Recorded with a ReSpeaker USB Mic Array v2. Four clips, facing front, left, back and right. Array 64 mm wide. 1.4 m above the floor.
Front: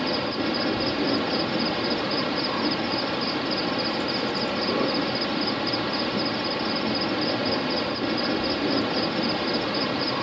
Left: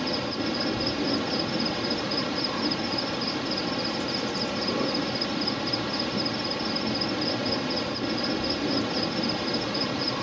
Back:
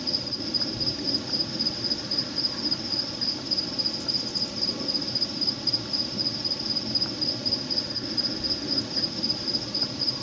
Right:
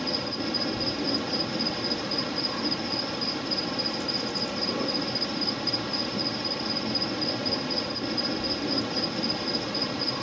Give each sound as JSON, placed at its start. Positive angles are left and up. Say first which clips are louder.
{"t": 0.0, "sound": "an insect", "louder": "left 2 dB, front 10 dB", "azimuth_deg": 10}